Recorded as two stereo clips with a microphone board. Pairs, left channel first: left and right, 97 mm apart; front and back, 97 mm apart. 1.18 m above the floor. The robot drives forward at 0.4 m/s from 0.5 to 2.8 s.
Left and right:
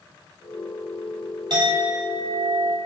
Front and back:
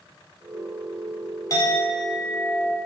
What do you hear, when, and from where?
1.5 s a clink: 50° right, 3 m; by 2.8 s 55° right, 2.5 m